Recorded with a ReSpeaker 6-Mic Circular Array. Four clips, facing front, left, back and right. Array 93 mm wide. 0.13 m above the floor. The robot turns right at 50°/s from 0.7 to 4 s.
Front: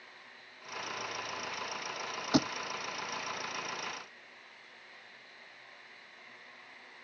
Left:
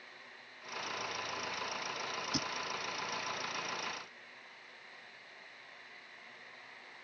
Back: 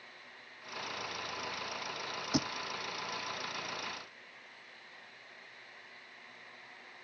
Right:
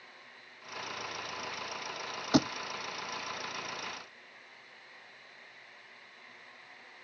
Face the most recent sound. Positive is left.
turn(degrees=20)